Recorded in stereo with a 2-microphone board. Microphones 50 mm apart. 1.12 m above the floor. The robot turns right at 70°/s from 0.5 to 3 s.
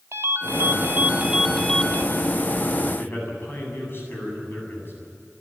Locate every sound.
0.1 s a ringtone: 70° right, 1.7 m; by 2.0 s 35° left, 1.7 m
3.0 s a man speaking: 50° left (ahead or behind), 8.5 m